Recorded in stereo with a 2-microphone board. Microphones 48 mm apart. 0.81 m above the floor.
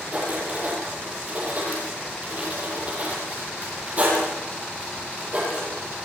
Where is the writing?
35° right (ahead or behind), 9.5 m.